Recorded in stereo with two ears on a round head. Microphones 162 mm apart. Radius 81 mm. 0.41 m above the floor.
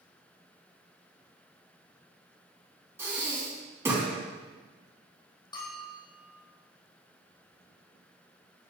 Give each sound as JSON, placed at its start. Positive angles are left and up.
{"t": 3.0, "sound": "breathing", "side_deg": -15, "distance_m": 3.0}
{"t": 5.5, "sound": "a bell", "side_deg": 25, "distance_m": 3.0}